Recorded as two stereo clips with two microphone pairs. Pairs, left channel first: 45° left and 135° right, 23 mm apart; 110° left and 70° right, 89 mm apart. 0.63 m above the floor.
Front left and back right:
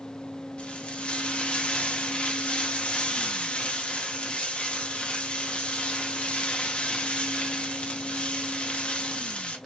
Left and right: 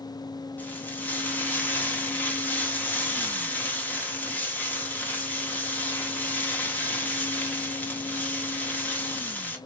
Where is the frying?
45° left, 1.2 m.